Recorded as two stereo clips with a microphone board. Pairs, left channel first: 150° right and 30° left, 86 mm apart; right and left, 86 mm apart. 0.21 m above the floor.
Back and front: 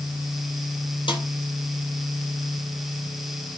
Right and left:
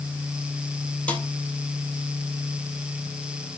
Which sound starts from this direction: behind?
A snare drum, at 1.1 s.